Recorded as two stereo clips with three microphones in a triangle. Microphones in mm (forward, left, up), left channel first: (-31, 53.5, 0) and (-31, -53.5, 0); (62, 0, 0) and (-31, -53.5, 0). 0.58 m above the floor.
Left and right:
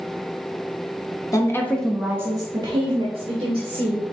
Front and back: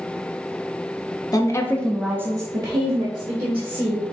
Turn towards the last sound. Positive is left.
turn(degrees=-120)